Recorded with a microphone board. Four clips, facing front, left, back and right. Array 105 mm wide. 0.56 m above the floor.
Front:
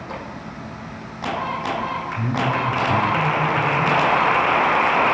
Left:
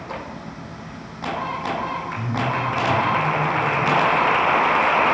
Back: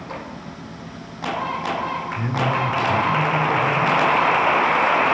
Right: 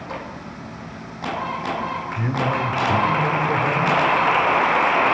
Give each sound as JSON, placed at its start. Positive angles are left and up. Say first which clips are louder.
{"t": 2.2, "sound": "a man speaking", "louder": "right 3 dB, even", "azimuth_deg": -115, "distance_m": 3.0}